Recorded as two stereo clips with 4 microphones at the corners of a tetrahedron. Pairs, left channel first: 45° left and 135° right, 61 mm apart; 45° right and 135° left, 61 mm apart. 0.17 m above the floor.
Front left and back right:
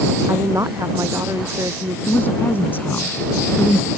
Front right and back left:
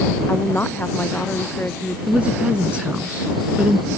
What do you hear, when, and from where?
0.3 s a woman speaking: 105° right
2.1 s a woman speaking: 75° left